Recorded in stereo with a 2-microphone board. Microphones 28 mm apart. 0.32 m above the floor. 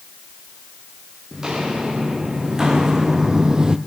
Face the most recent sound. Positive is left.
turn(degrees=-25)  # may be behind; listen again after turning